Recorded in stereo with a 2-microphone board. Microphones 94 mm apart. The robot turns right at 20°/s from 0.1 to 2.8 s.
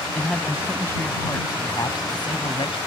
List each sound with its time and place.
0.1 s a man speaking: 10° left; by 2.8 s 60° left